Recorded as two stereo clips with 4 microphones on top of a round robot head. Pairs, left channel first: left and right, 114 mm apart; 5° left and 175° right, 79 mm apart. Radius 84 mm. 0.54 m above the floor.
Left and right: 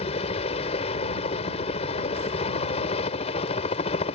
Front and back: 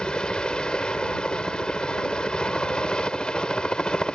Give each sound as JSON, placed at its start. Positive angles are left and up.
{"t": 0.0, "sound": "a helicopter", "azimuth_deg": 80}